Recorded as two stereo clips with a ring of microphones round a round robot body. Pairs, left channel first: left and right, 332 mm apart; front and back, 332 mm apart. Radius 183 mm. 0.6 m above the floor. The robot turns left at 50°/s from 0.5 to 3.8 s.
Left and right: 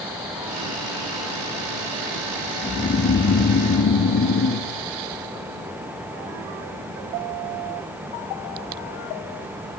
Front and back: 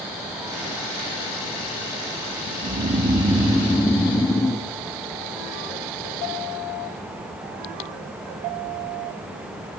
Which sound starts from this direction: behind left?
Snoring, at 2.6 s.